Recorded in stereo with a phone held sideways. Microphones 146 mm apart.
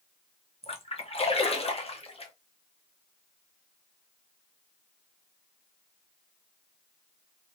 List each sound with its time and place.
0.6 s a splash: 40° left (ahead or behind), 0.7 m